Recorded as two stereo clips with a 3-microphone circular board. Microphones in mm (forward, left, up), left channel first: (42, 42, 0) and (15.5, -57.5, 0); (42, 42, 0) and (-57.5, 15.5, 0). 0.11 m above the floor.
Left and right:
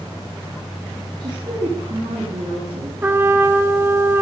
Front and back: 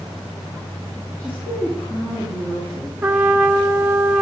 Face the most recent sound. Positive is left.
turn(degrees=-135)